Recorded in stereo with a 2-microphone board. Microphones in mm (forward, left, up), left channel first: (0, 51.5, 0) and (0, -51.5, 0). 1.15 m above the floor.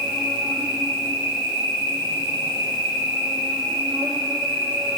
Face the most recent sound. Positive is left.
turn(degrees=-50)  # may be behind; listen again after turning